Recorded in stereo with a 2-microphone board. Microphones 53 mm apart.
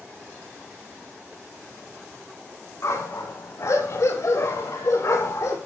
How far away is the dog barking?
About 9.5 m.